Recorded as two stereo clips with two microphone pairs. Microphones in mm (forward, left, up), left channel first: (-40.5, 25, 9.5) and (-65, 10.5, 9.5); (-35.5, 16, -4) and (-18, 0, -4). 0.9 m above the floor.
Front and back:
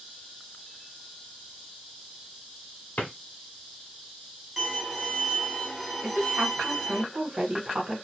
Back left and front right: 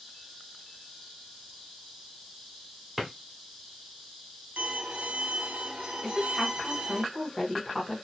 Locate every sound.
3.0 s a drawer: 45° left, 1.1 m
4.6 s a violin: 70° right, 1.0 m
6.0 s a woman speaking: 150° right, 0.9 m